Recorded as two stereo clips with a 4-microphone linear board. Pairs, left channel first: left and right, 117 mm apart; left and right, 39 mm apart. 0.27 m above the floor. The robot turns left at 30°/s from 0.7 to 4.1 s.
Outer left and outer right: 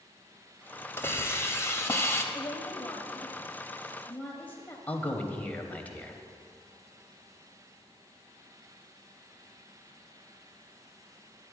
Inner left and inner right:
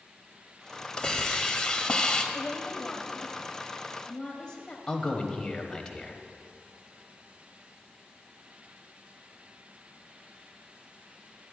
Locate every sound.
1.0 s a hiss: 20° left (ahead or behind), 0.8 m; by 2.2 s 25° left (ahead or behind), 0.8 m
2.3 s a woman speaking: 25° left (ahead or behind), 1.0 m; by 4.8 s 15° left (ahead or behind), 1.0 m
4.9 s a man speaking: 15° left (ahead or behind), 1.0 m